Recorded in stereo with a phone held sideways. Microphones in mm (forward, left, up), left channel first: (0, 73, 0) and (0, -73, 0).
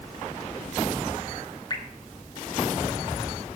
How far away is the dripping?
About 1.0 m.